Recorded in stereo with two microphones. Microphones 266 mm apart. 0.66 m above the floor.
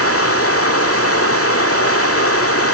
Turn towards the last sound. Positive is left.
turn(degrees=60)  # may be behind; listen again after turning